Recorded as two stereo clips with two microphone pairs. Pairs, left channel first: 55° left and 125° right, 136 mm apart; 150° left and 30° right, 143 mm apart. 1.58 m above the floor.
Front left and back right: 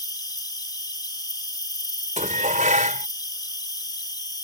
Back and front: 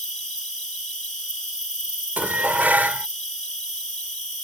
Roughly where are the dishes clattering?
Right.